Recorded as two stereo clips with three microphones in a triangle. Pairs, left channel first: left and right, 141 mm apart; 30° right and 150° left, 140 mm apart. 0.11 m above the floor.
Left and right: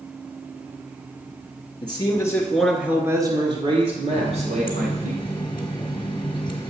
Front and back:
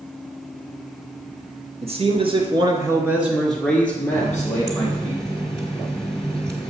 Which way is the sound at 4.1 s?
50° left.